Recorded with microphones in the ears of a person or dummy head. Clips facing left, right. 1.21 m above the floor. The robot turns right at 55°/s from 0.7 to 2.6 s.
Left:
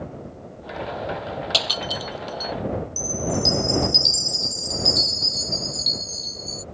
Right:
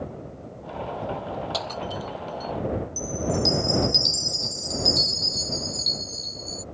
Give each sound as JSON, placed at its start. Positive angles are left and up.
{"t": 1.5, "sound": "breaking glass", "side_deg": 45}
{"t": 3.0, "sound": "a chime", "side_deg": 5}